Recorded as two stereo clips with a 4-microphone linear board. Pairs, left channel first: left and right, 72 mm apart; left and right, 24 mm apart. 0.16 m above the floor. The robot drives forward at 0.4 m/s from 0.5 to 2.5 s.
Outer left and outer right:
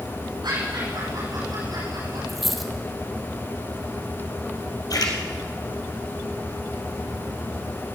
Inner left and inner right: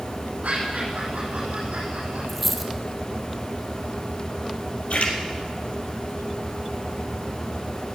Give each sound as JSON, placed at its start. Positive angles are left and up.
{"t": 0.4, "sound": "laughter", "side_deg": -75, "distance_m": 7.5}
{"t": 2.3, "sound": "a dropped coin", "side_deg": 0, "distance_m": 2.0}
{"t": 4.9, "sound": "a splash", "side_deg": 60, "distance_m": 3.0}